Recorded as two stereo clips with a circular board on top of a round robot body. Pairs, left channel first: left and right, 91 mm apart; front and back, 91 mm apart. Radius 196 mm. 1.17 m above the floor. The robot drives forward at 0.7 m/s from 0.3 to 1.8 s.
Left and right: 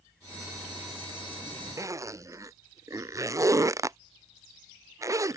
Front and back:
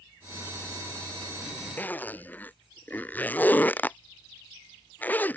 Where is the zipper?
60° right.